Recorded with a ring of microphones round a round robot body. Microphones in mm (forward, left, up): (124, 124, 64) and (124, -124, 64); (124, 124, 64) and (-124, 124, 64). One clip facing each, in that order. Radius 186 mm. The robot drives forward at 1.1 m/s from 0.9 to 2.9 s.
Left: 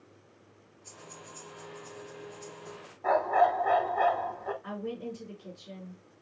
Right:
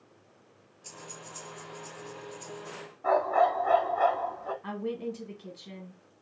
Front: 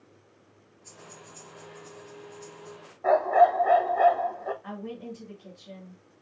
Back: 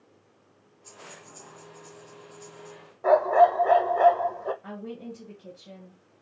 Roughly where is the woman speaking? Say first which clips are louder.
Right 7 dB, even; behind right.